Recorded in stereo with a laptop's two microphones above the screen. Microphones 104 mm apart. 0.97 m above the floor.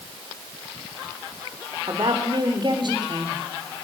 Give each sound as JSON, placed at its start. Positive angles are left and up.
{"t": 1.9, "sound": "a woman speaking", "side_deg": -45, "distance_m": 3.5}